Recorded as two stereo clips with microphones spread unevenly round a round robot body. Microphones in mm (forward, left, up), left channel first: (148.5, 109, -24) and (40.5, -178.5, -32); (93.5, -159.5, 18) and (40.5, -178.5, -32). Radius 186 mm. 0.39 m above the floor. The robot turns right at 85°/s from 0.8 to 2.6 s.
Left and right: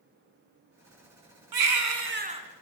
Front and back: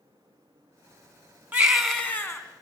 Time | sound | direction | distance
1.5 | a baby crying | 110° right | 3.5 m